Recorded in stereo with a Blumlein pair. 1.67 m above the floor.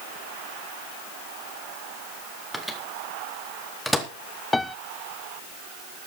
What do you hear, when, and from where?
2.5 s a microwave: straight ahead, 2.5 m
4.5 s a piano: 5° left, 0.5 m